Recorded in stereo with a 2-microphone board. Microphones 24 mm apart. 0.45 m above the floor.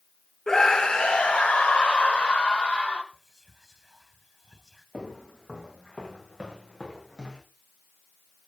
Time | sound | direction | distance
0.5 | a scream | 25° left (ahead or behind) | 0.9 m
3.1 | whispering | 10° right (ahead or behind) | 1.9 m
4.9 | footsteps | 40° left (ahead or behind) | 6 m